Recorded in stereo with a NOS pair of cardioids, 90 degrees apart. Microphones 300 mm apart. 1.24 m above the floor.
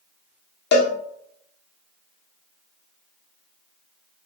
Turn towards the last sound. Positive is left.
turn(degrees=35)